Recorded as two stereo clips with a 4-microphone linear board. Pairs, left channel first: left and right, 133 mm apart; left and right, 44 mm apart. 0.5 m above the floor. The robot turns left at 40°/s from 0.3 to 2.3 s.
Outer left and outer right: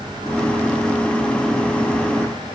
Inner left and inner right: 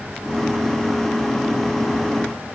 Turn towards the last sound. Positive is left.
No sound to turn to.